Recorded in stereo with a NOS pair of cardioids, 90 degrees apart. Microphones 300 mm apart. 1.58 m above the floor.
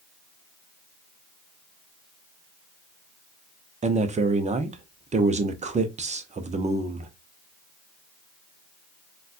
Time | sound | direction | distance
3.8 | a man speaking | 25° right | 0.7 m